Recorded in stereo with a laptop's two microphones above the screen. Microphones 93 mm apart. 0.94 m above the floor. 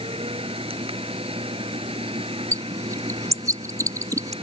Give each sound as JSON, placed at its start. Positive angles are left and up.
{"t": 0.0, "sound": "a machine running", "side_deg": -90}
{"t": 2.5, "sound": "a bird", "side_deg": -35}